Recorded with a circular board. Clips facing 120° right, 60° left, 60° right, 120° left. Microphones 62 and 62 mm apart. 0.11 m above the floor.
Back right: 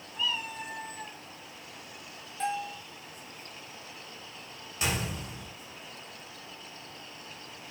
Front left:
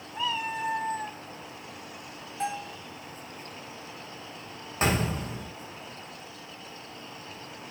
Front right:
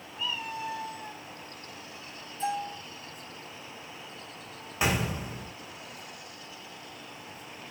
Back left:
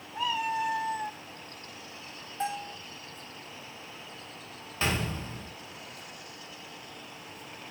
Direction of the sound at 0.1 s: 110° left.